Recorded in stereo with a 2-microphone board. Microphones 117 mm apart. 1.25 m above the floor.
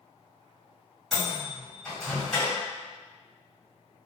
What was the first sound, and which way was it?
A microwave, 5° left (ahead or behind).